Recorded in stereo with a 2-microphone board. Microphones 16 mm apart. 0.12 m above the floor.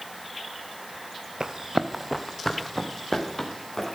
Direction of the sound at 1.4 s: 45° right (ahead or behind).